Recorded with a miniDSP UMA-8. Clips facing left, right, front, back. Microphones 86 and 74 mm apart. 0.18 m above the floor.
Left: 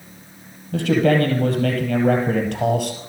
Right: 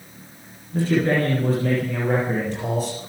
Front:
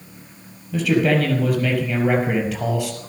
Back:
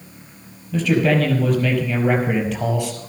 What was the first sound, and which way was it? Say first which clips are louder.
A man speaking: left 3 dB, even; 85° left.